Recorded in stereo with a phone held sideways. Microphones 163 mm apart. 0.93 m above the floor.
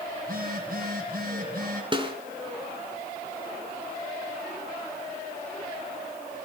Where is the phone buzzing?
60° right (ahead or behind), 8 m.